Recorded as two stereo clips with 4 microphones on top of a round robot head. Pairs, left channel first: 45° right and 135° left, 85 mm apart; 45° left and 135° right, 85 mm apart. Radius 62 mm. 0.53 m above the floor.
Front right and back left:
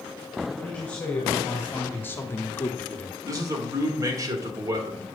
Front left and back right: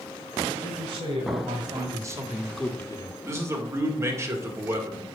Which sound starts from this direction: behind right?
A woman speaking, at 0.6 s.